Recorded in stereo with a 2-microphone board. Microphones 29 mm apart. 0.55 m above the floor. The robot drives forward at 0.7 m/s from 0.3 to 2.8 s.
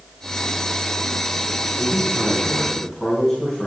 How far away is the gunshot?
No gunshot in this recording.